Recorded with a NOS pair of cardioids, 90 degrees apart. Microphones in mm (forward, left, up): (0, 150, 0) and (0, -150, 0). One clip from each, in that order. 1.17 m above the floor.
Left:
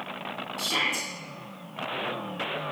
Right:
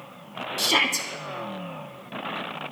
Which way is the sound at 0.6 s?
65° right.